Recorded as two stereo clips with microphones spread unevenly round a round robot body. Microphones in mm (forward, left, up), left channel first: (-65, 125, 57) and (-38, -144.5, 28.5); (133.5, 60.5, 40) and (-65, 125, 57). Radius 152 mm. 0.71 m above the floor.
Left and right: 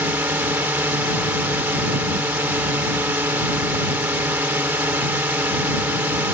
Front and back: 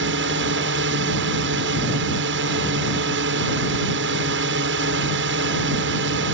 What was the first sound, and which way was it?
A drone, 165° right.